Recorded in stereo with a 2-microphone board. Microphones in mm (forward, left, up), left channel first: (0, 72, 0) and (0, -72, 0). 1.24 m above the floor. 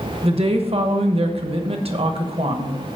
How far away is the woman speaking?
About 0.9 m.